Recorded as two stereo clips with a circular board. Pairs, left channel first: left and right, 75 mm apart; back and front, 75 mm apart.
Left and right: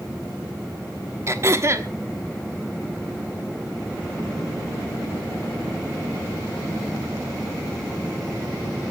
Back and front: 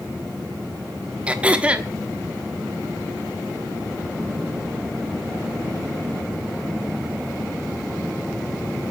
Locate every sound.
1.3 s throat clearing: 65° right, 1.3 m